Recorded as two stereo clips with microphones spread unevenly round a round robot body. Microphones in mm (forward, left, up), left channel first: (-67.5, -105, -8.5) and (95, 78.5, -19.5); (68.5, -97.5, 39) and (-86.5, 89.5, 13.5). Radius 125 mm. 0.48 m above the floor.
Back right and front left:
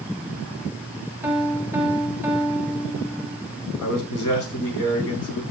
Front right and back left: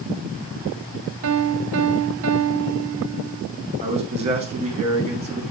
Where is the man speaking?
165° right, 5 m.